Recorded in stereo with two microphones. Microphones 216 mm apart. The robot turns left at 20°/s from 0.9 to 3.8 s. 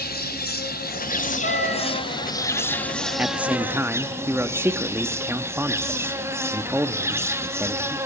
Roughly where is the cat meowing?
Left.